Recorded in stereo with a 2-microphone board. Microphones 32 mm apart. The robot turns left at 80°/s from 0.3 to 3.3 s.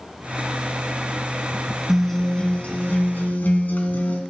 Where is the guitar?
175° right, 2.5 m; by 4.2 s 75° left, 2.5 m.